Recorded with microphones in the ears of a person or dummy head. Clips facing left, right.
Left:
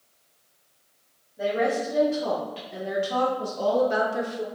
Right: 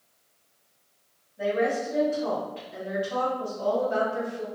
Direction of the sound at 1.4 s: 40° left (ahead or behind).